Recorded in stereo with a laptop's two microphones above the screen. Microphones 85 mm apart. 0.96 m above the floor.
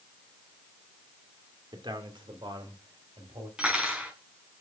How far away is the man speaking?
About 2 m.